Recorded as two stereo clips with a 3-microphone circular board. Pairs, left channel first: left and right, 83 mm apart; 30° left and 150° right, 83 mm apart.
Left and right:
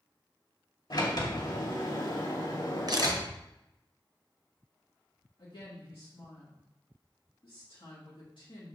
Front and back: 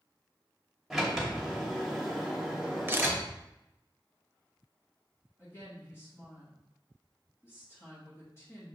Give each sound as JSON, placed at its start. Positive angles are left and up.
{"t": 0.9, "sound": "a sliding door", "azimuth_deg": 120, "distance_m": 2.0}
{"t": 2.9, "sound": "a camera shutter", "azimuth_deg": -95, "distance_m": 0.9}
{"t": 5.4, "sound": "a woman speaking", "azimuth_deg": 90, "distance_m": 2.5}